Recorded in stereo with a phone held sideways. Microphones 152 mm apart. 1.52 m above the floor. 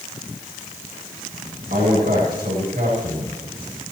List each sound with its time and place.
1.7 s a man speaking: 80° right, 8.5 m